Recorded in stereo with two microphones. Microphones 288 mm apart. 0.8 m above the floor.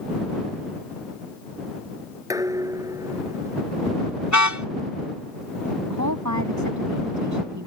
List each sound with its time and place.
2.3 s dishes clattering: 10° right (ahead or behind)
4.3 s a car horn: 80° left
5.9 s a woman speaking: 85° right